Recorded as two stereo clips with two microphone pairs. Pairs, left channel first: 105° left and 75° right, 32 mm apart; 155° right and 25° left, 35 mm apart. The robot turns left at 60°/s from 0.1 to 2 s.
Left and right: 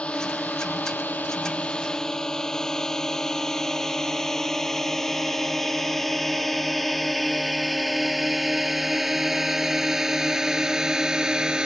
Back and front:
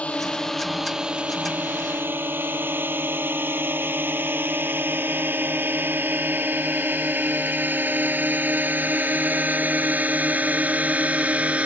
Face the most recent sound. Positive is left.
turn(degrees=-20)